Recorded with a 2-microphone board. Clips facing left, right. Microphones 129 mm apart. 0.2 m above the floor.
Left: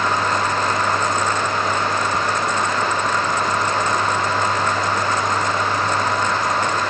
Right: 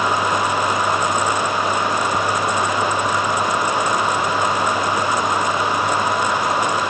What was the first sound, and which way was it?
Only background noise.